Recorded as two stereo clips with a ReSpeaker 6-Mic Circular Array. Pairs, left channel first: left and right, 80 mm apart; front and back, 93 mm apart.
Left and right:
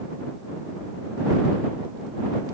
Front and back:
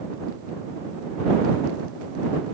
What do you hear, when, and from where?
Only background noise.